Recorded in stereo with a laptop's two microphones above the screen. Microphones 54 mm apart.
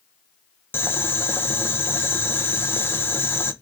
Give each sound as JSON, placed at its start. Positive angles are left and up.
{"t": 0.7, "sound": "boiling", "side_deg": 45, "distance_m": 0.6}